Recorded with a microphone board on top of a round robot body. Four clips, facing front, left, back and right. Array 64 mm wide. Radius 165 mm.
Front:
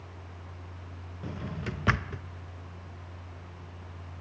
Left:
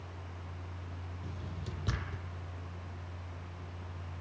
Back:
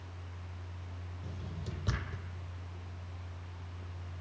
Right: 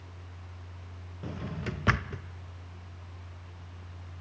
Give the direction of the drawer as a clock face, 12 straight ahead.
1 o'clock.